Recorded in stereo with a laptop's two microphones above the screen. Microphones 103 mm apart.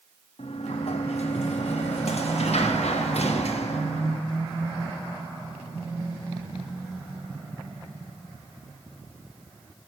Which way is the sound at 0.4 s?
80° left.